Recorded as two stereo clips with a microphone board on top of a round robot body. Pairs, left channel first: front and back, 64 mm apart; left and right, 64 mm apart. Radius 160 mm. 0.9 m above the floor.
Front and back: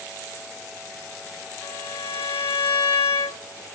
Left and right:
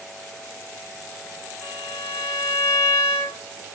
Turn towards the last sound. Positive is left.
turn(degrees=30)